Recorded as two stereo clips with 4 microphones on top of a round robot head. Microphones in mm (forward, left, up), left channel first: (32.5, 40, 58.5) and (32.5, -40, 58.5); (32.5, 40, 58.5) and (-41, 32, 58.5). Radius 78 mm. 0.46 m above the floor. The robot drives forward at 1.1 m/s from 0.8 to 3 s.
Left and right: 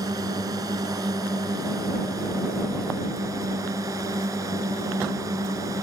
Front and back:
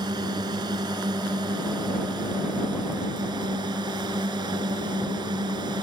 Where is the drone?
140° right; by 5.8 s 145° right.